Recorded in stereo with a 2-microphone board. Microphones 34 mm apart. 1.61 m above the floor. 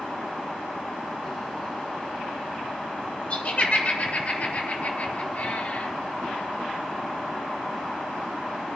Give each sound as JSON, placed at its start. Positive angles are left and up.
{"t": 3.3, "sound": "laughter", "side_deg": 35, "distance_m": 6.0}